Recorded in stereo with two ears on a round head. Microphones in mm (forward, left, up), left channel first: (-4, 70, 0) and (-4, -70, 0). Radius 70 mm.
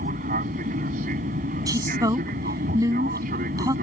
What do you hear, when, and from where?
0.0 s an aircraft: 55° right (ahead or behind)
1.7 s a woman speaking: 25° right (ahead or behind)